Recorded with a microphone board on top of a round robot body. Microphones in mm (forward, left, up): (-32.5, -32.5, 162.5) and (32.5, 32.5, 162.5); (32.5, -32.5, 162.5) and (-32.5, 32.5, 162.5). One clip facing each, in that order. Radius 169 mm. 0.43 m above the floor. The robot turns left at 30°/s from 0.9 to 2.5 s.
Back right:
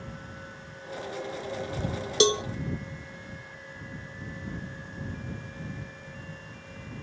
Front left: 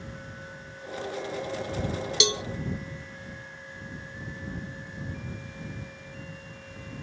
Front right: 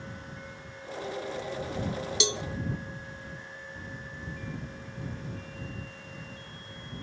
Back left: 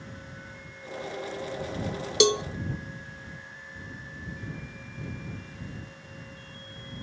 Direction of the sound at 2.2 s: 170° left.